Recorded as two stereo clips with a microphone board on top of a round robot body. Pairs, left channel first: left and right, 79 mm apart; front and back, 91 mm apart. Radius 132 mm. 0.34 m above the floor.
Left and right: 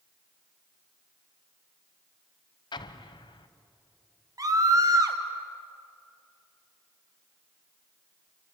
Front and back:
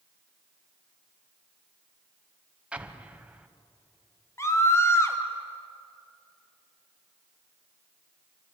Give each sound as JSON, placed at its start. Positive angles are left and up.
{"t": 2.7, "sound": "an explosion", "azimuth_deg": 105, "distance_m": 1.1}
{"t": 4.4, "sound": "a scream", "azimuth_deg": -55, "distance_m": 3.0}